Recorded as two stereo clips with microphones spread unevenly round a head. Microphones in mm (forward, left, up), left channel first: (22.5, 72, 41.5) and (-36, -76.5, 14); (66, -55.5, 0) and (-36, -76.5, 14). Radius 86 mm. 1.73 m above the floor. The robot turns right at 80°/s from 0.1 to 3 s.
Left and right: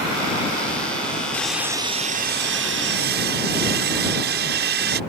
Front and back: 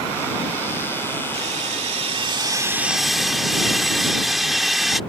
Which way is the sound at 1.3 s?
145° left.